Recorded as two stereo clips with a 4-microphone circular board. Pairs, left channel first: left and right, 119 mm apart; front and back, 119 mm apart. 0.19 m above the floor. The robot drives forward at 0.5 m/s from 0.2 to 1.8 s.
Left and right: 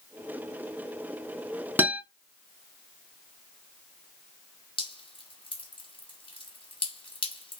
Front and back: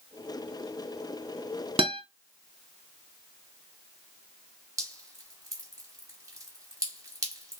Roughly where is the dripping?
Behind left.